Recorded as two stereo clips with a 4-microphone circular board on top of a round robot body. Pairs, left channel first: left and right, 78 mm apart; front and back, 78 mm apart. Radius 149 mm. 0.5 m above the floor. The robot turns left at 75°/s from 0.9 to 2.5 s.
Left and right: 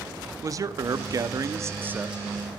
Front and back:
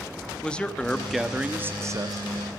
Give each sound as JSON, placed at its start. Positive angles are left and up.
{"t": 0.4, "sound": "a man speaking", "azimuth_deg": -70, "distance_m": 0.8}